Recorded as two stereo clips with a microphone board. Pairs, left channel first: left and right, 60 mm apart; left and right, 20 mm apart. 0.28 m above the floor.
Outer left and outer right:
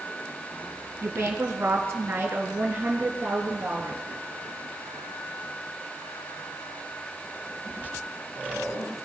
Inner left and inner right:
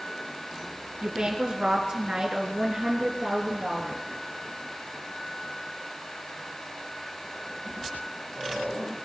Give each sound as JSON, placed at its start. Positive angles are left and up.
{"t": 1.0, "sound": "a woman speaking", "side_deg": -50, "distance_m": 3.0}